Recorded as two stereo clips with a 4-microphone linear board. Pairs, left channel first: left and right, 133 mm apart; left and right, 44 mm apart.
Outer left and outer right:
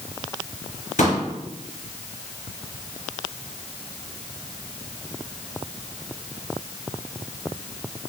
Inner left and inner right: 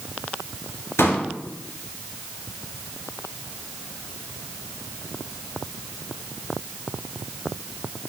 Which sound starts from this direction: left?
A pop, at 1.0 s.